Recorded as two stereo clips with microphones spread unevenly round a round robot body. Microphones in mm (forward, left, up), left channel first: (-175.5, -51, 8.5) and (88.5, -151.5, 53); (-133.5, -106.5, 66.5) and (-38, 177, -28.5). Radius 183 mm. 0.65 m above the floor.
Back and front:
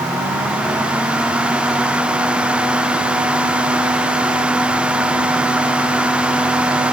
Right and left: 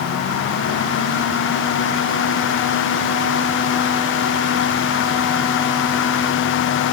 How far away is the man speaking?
No man speaking in this recording.